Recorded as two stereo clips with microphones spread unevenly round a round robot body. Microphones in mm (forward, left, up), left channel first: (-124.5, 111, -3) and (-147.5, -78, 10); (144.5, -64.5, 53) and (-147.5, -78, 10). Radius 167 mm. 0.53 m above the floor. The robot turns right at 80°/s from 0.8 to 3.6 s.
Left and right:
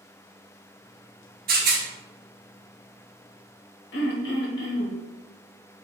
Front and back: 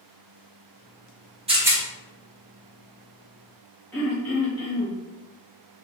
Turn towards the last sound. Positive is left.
turn(degrees=90)